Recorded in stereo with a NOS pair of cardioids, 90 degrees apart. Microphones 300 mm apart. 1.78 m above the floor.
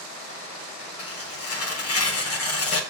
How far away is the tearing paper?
About 1.7 m.